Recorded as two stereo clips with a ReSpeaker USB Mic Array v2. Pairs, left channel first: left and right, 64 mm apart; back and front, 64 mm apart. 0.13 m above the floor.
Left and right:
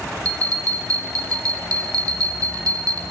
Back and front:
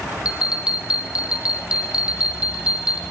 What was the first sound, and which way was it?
A bell, 70° right.